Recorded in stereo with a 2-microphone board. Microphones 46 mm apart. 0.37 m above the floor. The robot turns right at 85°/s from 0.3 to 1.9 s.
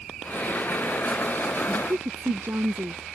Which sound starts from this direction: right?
A woman speaking, at 1.7 s.